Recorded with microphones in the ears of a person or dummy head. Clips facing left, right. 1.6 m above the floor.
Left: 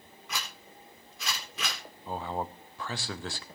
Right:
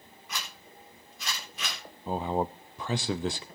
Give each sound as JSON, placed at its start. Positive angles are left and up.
{"t": 0.3, "sound": "a zipper", "side_deg": 70, "distance_m": 4.0}
{"t": 2.1, "sound": "a man speaking", "side_deg": -20, "distance_m": 0.5}